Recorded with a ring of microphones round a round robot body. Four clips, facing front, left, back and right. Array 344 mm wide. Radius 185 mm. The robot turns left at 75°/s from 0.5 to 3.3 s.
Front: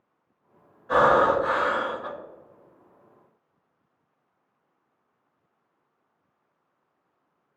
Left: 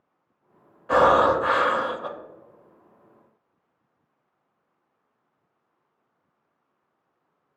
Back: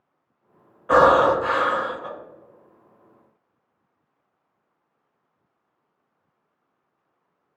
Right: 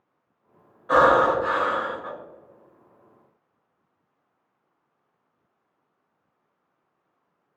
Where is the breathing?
170° left, 0.6 m; by 2.1 s 80° left, 0.6 m.